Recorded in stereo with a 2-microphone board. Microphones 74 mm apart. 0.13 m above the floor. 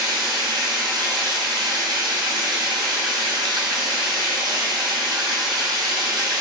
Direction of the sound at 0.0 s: 75° right (ahead or behind).